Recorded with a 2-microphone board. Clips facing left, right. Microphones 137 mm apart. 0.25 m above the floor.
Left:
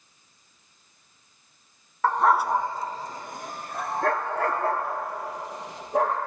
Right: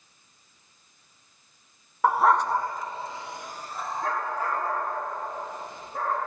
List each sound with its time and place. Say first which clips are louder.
2.0 s a dog barking: even; 15° right (ahead or behind), 0.5 m; by 6.2 s 75° left (ahead or behind), 2.5 m